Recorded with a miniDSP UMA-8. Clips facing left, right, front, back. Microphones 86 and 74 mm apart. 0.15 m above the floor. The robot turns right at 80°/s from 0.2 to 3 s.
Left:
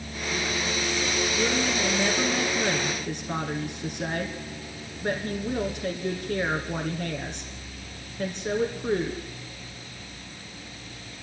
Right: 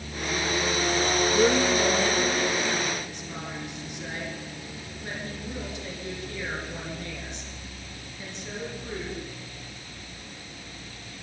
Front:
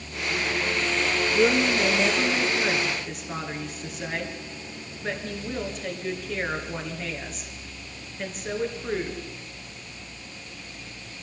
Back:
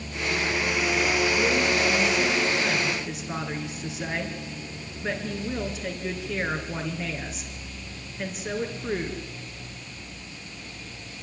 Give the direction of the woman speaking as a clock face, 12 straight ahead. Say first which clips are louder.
Right 6 dB, front 2 dB; 1 o'clock.